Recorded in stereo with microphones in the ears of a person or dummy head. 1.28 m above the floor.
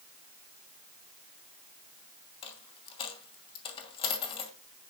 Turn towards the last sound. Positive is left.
turn(degrees=25)  # may be behind; listen again after turning